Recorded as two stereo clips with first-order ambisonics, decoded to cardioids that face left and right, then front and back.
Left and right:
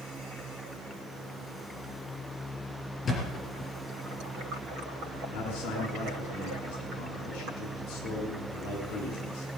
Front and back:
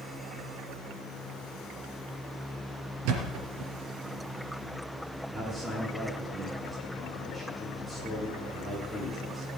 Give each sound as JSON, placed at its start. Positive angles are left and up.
{"t": 3.0, "sound": "a thud", "azimuth_deg": 160, "distance_m": 3.5}
{"t": 5.3, "sound": "a man speaking", "azimuth_deg": 90, "distance_m": 7.0}